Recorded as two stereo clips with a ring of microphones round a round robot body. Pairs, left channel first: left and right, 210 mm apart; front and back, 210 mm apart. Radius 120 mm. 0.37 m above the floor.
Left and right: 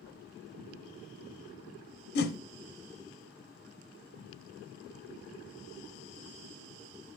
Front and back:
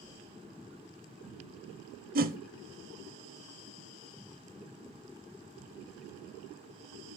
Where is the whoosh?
135° left, 0.7 m.